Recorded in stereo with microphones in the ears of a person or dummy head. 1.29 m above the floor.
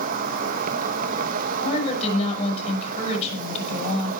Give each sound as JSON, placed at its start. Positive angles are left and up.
{"t": 0.0, "sound": "an insect", "side_deg": -45, "distance_m": 1.7}
{"t": 1.6, "sound": "a woman speaking", "side_deg": 35, "distance_m": 7.0}